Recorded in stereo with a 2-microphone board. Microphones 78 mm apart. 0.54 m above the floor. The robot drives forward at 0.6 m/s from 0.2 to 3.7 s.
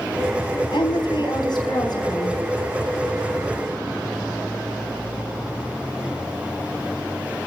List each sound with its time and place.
0.7 s a woman speaking: 75° left (ahead or behind), 3.5 m; by 2.4 s 60° left (ahead or behind), 4 m